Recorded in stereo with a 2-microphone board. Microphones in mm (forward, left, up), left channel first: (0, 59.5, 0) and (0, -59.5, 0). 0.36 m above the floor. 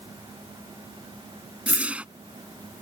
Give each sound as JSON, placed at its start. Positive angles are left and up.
{"t": 1.7, "sound": "a whoosh", "side_deg": -10}